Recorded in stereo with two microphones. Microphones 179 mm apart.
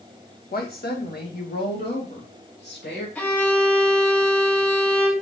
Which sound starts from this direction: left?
A woman speaking, at 0.5 s.